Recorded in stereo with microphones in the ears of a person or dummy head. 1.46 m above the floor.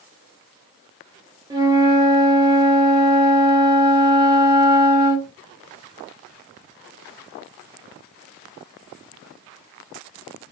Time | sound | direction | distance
1.5 | a flute | 25° right (ahead or behind) | 1.2 m